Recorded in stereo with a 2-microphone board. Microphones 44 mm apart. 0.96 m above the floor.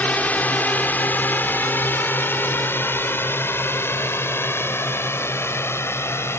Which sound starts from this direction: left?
A drone, at 0.0 s.